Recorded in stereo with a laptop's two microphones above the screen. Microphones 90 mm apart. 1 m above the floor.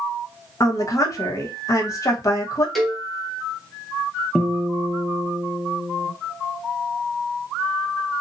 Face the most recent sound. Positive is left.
turn(degrees=-5)  # may be behind; listen again after turning